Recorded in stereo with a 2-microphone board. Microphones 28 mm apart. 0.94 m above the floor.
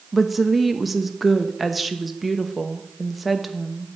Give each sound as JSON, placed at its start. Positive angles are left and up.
{"t": 0.1, "sound": "a woman speaking", "side_deg": -5, "distance_m": 1.0}